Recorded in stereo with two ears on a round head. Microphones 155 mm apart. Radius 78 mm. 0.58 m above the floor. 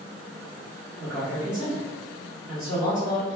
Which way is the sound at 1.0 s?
10° right (ahead or behind).